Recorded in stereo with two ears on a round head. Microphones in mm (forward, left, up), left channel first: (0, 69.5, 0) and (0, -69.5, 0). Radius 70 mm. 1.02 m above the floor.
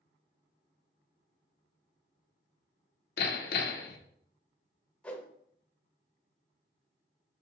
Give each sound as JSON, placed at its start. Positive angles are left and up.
{"t": 3.2, "sound": "hammering", "side_deg": 70, "distance_m": 0.6}
{"t": 5.0, "sound": "a whoosh", "side_deg": 10, "distance_m": 0.5}